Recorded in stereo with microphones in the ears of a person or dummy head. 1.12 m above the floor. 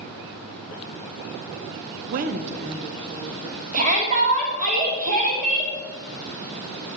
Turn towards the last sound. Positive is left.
turn(degrees=-40)  # may be behind; listen again after turning